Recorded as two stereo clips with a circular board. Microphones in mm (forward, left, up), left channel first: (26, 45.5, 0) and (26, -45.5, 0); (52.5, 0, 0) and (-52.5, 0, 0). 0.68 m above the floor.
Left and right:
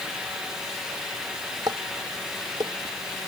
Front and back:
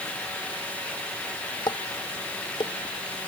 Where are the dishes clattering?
45° right.